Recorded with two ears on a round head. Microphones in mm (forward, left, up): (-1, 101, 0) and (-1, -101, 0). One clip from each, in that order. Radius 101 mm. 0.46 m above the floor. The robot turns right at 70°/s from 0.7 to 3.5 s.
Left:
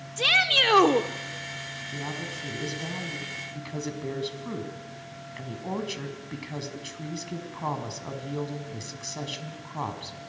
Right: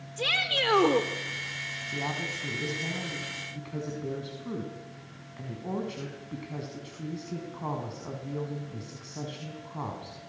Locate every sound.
0.2 s a shout: 30° left (ahead or behind), 0.9 m
1.9 s a woman speaking: 35° right, 4.5 m; by 10.2 s 75° left, 4.5 m